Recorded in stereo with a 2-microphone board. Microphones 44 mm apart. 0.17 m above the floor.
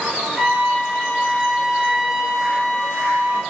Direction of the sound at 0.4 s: 5° right (ahead or behind).